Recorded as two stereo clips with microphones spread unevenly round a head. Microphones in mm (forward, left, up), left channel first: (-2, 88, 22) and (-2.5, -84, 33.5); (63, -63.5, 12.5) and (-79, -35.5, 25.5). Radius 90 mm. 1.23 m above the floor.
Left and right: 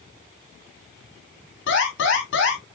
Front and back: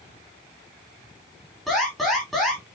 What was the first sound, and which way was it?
An alarm, 75° left.